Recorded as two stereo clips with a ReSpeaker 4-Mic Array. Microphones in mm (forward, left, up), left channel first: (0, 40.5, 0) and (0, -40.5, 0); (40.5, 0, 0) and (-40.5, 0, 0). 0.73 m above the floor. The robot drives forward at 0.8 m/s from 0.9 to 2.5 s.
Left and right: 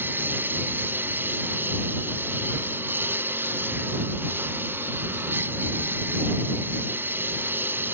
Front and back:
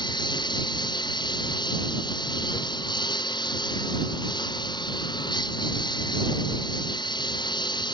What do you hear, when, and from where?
0.0 s a lawn mower: 25° right